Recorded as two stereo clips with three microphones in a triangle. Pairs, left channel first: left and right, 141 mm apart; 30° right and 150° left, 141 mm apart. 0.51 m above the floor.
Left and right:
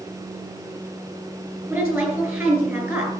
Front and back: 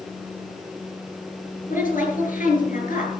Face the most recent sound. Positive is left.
turn(degrees=-10)